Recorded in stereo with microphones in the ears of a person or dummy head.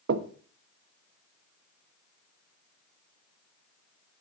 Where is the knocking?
60° right (ahead or behind), 0.5 m.